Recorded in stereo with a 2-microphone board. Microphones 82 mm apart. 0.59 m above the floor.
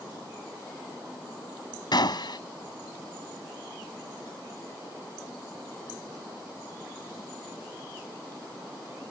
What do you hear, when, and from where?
1.9 s a gunshot: 65° left (ahead or behind)